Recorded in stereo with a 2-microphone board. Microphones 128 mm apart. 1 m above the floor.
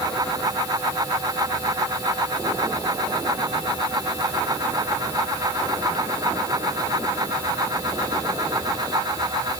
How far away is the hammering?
I don't hear hammering.